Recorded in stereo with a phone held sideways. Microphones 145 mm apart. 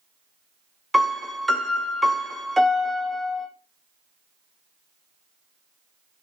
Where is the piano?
Centre (ahead or behind), 0.7 m.